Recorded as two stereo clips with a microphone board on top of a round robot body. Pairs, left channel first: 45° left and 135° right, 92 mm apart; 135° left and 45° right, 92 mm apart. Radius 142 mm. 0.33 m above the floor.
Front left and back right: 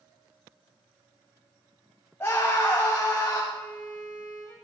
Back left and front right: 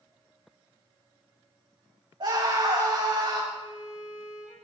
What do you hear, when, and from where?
2.2 s a scream: 20° right, 2.5 m
3.5 s a violin: 105° left, 4.5 m